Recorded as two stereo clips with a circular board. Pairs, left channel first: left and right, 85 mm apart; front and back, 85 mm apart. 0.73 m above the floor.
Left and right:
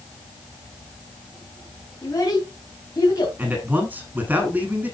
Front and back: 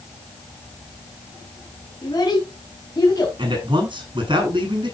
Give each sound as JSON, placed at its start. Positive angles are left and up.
{"t": 2.0, "sound": "a child speaking", "azimuth_deg": 40, "distance_m": 3.5}
{"t": 3.4, "sound": "a man speaking", "azimuth_deg": -160, "distance_m": 7.0}